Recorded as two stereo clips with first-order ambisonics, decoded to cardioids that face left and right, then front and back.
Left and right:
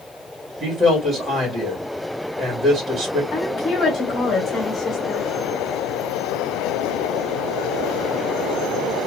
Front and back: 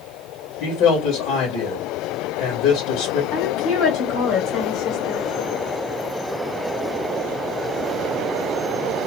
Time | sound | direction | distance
0.6 | a man speaking | 20° right | 2 m
3.3 | a woman speaking | 30° left | 2 m